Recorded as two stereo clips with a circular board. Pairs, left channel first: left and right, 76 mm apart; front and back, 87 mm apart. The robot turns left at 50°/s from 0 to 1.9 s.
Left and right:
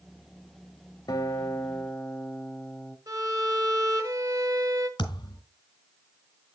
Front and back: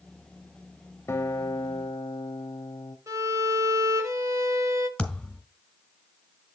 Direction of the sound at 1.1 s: 55° left.